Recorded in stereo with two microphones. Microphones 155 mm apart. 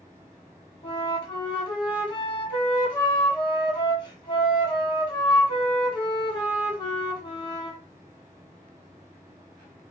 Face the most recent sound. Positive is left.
turn(degrees=30)  # may be behind; listen again after turning